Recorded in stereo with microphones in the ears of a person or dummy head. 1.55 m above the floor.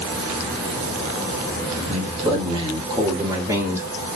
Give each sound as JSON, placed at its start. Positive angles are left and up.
{"t": 1.9, "sound": "a man speaking", "side_deg": -40, "distance_m": 2.5}